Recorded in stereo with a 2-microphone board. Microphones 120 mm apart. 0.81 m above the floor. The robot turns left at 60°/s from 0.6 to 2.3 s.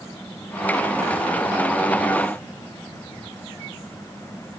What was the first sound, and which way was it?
Only background noise.